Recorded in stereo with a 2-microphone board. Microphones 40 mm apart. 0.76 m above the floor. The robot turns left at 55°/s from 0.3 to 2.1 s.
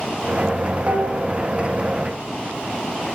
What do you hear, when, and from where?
0.9 s dishes clattering: 40° right (ahead or behind), 2.5 m; by 1.3 s 20° right (ahead or behind), 2.5 m